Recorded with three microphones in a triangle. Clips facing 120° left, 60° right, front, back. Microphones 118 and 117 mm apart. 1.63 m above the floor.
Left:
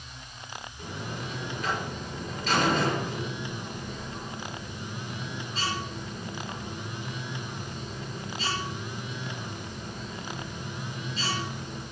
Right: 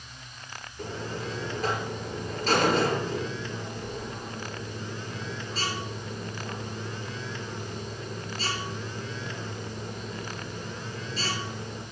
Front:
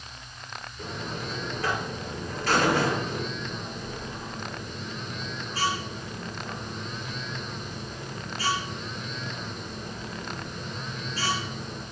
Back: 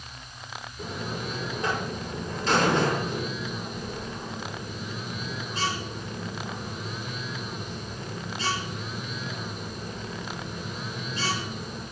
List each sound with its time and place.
0.8 s a buzzer: 110° right, 6.5 m